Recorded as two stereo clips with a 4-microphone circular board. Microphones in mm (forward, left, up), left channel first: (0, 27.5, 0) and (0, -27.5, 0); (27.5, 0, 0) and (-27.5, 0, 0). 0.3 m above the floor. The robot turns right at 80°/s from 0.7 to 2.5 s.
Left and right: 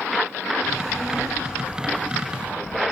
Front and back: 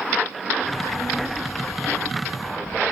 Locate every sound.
0.6 s a child speaking: 40° left, 10 m; by 2.8 s straight behind, 10 m